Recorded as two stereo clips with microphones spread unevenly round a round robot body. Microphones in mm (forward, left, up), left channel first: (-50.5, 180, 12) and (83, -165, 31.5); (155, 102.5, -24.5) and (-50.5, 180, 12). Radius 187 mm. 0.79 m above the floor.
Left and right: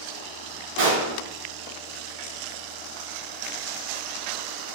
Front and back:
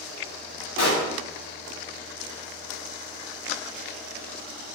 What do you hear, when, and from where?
0.8 s a pop: 10° right, 1.3 m